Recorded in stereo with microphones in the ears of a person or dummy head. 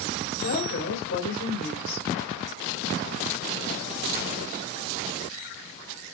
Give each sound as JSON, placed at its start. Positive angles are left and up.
{"t": 0.4, "sound": "a woman speaking", "side_deg": 80, "distance_m": 4.0}